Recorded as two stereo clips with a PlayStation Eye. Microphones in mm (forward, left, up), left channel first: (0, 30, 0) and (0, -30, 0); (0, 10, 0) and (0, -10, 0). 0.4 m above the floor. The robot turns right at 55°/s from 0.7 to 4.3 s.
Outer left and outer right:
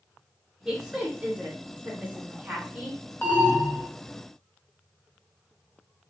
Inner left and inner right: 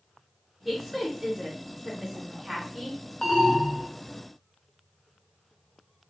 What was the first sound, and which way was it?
A woman speaking, 10° right (ahead or behind).